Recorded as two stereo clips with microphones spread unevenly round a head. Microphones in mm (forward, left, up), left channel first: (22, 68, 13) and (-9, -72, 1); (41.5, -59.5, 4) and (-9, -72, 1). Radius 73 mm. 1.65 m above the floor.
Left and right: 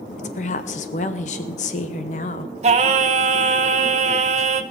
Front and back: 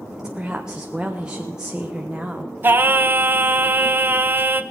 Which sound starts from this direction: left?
A woman speaking, at 0.2 s.